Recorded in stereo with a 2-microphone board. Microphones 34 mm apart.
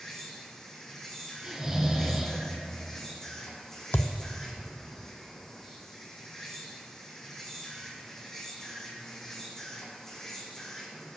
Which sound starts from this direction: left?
A thud, at 3.9 s.